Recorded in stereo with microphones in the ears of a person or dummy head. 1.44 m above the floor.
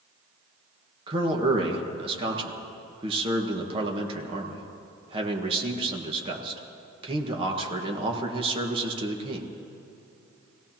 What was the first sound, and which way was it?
A man speaking, 35° right (ahead or behind).